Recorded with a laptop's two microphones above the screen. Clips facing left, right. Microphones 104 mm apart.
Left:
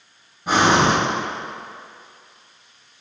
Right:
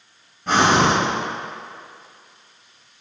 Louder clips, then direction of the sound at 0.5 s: Even; 5° left (ahead or behind).